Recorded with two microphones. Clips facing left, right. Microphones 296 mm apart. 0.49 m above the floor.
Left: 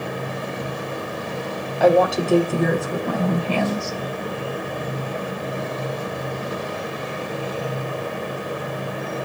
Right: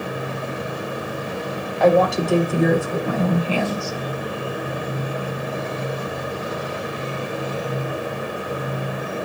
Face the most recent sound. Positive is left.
turn(degrees=-10)  # may be behind; listen again after turning